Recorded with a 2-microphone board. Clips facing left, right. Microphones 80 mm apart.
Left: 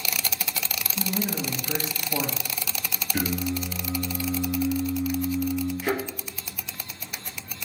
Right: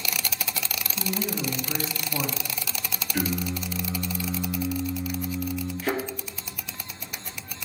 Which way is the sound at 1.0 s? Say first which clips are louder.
Left 1 dB; 60° left (ahead or behind).